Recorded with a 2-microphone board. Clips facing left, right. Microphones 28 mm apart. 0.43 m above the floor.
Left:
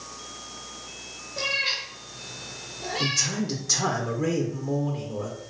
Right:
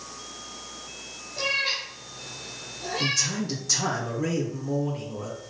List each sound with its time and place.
1.4 s a cat meowing: 30° left (ahead or behind), 2.5 m
3.0 s a man speaking: 10° left (ahead or behind), 1.1 m